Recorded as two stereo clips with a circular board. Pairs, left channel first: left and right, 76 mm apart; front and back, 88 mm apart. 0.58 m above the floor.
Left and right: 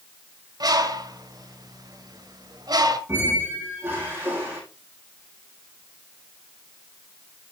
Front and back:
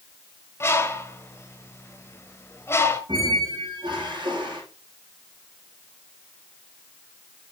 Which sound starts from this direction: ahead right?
A bird, at 0.6 s.